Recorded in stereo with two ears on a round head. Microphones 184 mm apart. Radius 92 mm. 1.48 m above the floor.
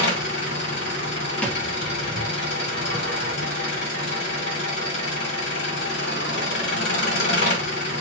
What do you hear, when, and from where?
0.0 s an engine running: 55° left (ahead or behind), 1.7 m
1.4 s a thud: 5° left (ahead or behind), 0.9 m